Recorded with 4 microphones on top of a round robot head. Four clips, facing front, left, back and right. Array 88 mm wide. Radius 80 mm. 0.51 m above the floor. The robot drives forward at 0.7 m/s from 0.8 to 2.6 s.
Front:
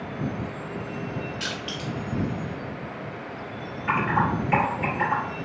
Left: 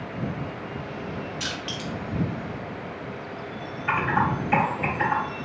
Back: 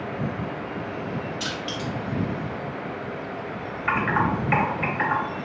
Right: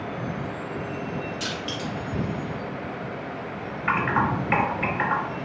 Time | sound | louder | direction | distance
1.4 | crushing | right 2 dB, back 2 dB | 25° left | 1.8 m
3.9 | typing on a keyboard | even, even | 140° right | 2 m